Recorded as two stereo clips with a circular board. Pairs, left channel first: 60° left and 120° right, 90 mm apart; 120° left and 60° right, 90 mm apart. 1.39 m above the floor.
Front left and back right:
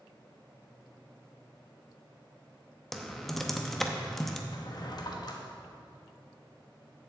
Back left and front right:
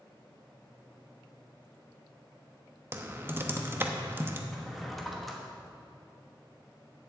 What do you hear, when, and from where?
2.9 s typing on a keyboard: 25° right, 0.8 m
4.5 s a drawer: 30° left, 1.1 m